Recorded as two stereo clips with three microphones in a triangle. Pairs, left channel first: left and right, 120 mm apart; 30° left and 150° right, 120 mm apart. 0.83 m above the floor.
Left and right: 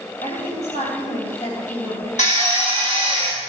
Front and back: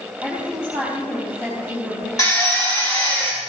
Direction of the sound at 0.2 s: 105° left.